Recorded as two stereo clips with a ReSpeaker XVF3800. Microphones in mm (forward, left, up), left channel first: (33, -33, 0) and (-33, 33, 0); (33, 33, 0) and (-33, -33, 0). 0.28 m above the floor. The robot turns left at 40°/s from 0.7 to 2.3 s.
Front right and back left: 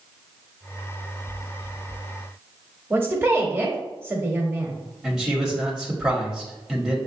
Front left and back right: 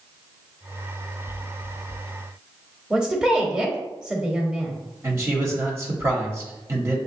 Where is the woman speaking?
155° left, 0.9 m.